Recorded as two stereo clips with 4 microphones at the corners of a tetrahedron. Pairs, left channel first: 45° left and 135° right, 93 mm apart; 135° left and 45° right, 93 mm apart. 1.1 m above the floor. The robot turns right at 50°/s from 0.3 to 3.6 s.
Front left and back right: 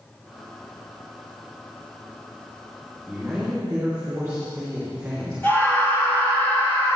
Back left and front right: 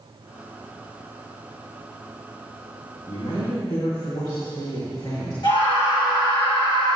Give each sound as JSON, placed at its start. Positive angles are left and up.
{"t": 3.1, "sound": "a man speaking", "azimuth_deg": 130, "distance_m": 2.0}
{"t": 5.4, "sound": "a scream", "azimuth_deg": 110, "distance_m": 2.5}